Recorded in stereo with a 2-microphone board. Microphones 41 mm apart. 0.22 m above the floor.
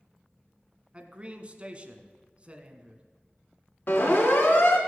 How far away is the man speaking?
About 1.6 m.